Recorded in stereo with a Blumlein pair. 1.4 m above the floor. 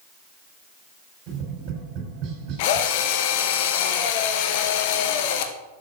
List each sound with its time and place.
1.3 s tapping: 35° right, 4.5 m
2.6 s a drill: 50° left, 0.8 m